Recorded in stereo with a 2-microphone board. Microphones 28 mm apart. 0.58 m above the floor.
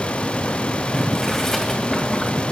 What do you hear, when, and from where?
0.9 s boiling: 15° left (ahead or behind), 2 m